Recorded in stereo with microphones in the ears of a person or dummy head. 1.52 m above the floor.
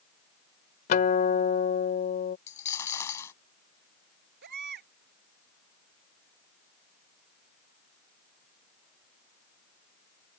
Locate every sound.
0.9 s a guitar: 50° left (ahead or behind)
2.5 s a dropped coin: 20° left (ahead or behind)
4.4 s a baby crying: 60° right (ahead or behind)